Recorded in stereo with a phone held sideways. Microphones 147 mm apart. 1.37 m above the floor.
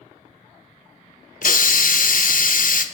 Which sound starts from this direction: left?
A hiss, at 1.4 s.